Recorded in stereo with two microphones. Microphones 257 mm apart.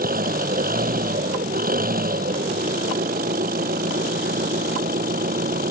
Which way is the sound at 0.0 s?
35° right (ahead or behind).